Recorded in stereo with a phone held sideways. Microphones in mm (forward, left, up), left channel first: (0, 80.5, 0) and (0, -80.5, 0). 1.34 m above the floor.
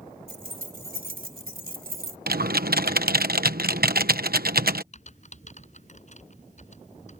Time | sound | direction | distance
0.3 | keys jangling | 70° right (ahead or behind) | ?
2.3 | typing on a keyboard | 75° right (ahead or behind) | ?
4.9 | typing on a keyboard | 50° left (ahead or behind) | ?